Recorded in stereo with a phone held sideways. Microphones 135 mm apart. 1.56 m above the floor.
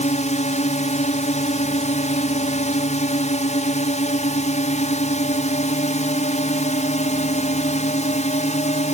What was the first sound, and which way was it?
A drone, 60° left (ahead or behind).